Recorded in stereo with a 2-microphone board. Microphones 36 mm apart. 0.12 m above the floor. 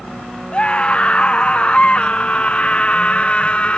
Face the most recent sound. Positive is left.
turn(degrees=35)  # may be behind; listen again after turning